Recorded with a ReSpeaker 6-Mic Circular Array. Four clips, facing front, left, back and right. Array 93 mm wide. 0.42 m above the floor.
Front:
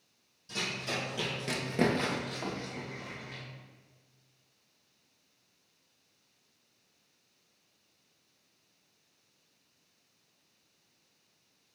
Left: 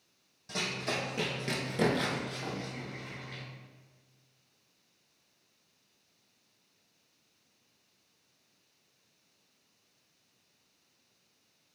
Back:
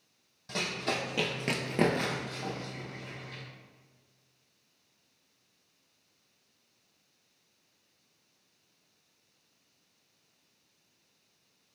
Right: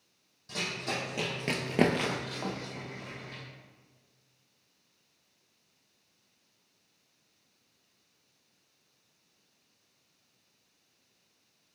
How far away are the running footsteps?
About 1.3 m.